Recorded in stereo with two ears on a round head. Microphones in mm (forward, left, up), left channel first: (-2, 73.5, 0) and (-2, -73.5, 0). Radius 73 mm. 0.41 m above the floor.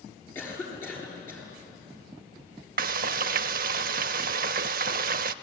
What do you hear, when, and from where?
0.3 s a cough: 15° left (ahead or behind), 8 m
2.8 s frying: 55° right (ahead or behind), 0.6 m